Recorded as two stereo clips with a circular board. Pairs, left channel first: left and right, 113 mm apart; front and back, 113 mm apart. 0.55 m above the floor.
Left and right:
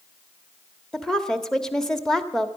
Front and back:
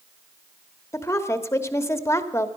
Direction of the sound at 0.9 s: 15° left.